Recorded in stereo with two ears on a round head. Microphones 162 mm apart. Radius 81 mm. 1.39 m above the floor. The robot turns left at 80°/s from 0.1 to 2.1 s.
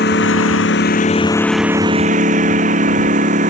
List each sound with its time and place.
0.0 s a lawn mower: 120° left; by 3.5 s 40° right